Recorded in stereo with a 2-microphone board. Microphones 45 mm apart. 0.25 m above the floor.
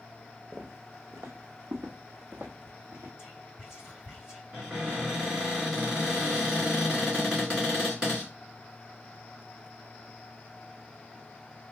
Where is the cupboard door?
20° right (ahead or behind), 2.5 m.